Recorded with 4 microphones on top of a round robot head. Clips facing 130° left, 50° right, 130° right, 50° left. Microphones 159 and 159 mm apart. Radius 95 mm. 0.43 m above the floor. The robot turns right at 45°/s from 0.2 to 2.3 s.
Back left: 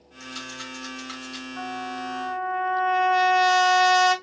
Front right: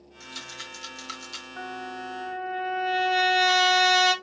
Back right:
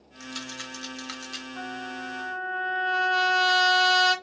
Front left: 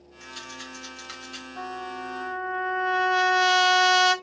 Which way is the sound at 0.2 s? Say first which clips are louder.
Back left 7 dB, back right 4 dB; 135° right.